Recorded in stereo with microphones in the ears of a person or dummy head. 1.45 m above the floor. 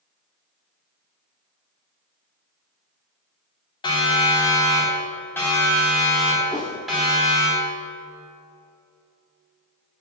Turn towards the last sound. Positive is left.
turn(degrees=0)  # may be behind; listen again after turning